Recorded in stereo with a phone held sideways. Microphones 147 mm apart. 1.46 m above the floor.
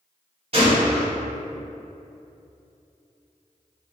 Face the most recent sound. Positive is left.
turn(degrees=-45)  # may be behind; listen again after turning